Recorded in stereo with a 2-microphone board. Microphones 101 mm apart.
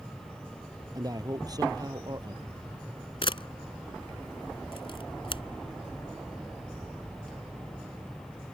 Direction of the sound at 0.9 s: 40° right (ahead or behind).